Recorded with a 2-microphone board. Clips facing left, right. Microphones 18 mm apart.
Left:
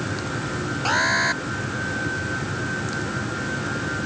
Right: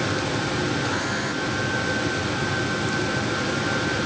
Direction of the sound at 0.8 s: 45° left (ahead or behind).